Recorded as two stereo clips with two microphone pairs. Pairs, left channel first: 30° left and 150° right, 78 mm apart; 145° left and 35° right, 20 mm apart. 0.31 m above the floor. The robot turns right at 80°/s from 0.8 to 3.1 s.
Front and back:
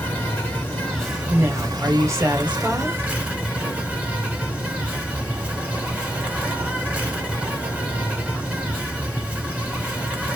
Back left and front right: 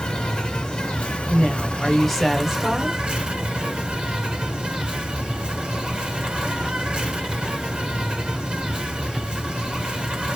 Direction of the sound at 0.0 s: 100° left.